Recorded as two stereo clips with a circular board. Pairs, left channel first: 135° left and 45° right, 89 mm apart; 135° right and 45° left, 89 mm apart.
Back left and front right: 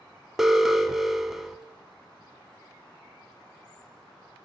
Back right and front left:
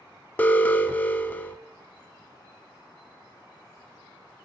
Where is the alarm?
125° right, 0.7 m.